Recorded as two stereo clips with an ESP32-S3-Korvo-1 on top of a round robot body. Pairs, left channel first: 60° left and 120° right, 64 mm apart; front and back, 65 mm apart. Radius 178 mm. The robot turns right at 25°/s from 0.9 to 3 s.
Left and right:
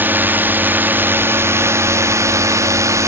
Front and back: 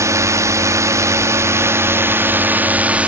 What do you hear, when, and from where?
0.0 s a drone: 170° right; by 3.1 s 115° right